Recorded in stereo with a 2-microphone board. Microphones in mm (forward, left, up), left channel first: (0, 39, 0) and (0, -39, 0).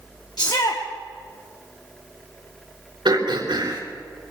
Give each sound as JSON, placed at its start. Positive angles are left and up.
{"t": 0.4, "sound": "a shout", "side_deg": 55, "distance_m": 1.4}
{"t": 3.0, "sound": "throat clearing", "side_deg": -70, "distance_m": 4.0}